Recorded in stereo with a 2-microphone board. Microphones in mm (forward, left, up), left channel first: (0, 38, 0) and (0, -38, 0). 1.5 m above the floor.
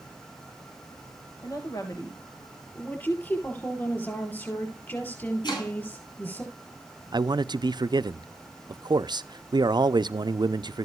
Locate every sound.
1.4 s a woman speaking: 50° left (ahead or behind), 1.9 m
2.8 s a woman speaking: 25° left (ahead or behind), 5 m
5.4 s chopping: 75° left (ahead or behind), 8.5 m
7.1 s a man speaking: 70° right (ahead or behind), 0.5 m